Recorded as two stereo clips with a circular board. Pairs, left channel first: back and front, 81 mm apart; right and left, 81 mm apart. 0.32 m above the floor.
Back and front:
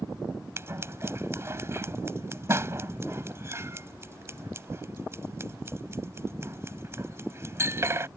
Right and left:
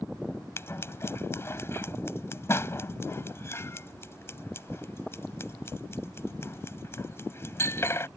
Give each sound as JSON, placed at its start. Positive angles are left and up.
{"t": 0.6, "sound": "scissors", "azimuth_deg": -45}